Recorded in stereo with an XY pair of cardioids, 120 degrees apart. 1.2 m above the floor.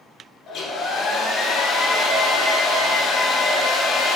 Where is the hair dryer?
60° left, 0.8 m.